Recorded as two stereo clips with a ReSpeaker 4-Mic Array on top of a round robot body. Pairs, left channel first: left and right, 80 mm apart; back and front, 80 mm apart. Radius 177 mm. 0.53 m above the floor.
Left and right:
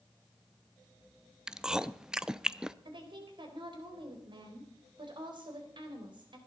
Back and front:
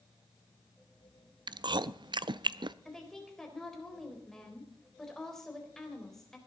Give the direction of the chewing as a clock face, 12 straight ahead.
12 o'clock.